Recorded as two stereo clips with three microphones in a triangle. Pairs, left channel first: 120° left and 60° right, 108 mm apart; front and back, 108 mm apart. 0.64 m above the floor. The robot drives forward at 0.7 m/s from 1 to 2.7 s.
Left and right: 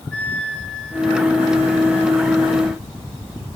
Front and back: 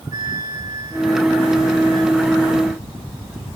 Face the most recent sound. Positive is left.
turn(degrees=-175)